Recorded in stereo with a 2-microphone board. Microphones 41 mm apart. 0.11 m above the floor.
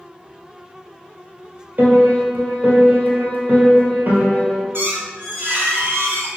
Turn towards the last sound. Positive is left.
turn(degrees=-70)  # may be behind; listen again after turning